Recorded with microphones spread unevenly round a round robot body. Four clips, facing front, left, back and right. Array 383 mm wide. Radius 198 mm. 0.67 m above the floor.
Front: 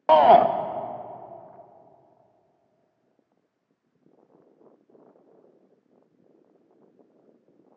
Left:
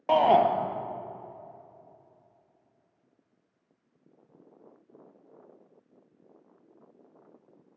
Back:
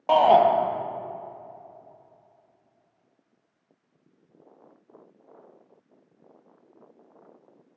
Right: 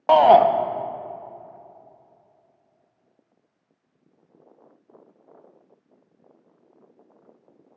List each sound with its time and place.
0.1 s a shout: 15° right, 0.6 m